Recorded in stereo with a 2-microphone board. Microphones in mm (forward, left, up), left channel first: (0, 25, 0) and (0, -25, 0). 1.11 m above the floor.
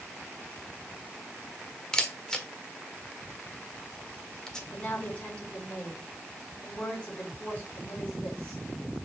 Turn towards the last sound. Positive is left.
turn(degrees=25)  # may be behind; listen again after turning